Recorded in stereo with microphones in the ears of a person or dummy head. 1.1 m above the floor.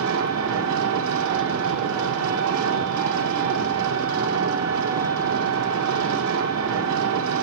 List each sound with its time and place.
0.0 s an engine running: 75° right (ahead or behind), 0.9 m